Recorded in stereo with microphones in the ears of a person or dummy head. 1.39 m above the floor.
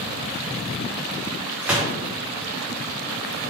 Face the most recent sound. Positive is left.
turn(degrees=-10)  # may be behind; listen again after turning